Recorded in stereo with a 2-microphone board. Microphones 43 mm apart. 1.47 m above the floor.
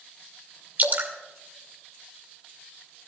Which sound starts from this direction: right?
Dripping, at 0.8 s.